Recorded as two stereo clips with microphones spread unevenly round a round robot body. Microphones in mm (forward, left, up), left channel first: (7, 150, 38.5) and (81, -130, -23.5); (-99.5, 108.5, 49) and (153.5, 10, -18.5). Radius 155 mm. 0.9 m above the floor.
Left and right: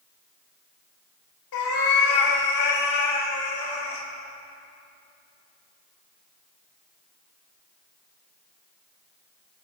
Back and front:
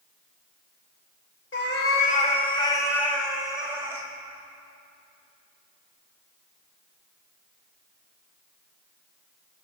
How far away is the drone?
No drone in this recording.